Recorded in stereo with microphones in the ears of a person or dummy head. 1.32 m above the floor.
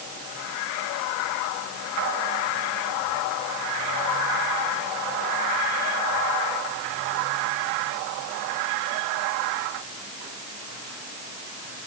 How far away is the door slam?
I don't hear a door slam.